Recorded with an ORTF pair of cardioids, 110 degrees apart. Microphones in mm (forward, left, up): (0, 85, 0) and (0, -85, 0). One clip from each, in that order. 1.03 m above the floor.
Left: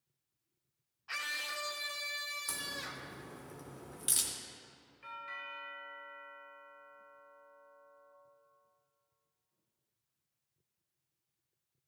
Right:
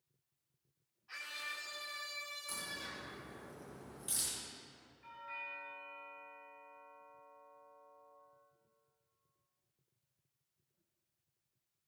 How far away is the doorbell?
About 2.5 m.